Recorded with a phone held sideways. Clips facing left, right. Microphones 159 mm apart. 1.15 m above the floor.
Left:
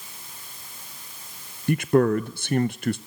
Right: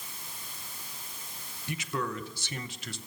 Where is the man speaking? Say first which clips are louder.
Left 15 dB; 60° left (ahead or behind), 0.7 m.